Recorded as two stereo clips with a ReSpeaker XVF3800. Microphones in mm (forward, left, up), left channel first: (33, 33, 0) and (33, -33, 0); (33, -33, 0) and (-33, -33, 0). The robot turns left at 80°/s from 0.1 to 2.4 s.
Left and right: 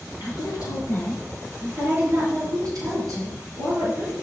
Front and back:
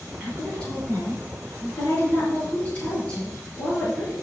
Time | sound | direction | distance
0.2 | a woman speaking | 105° left | 4.5 m